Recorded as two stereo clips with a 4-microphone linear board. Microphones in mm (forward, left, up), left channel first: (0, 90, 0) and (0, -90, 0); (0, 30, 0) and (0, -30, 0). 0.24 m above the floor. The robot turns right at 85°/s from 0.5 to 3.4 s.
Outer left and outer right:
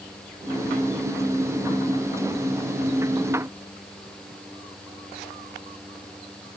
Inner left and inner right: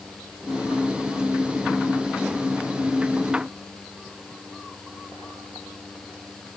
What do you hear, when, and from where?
Only background noise.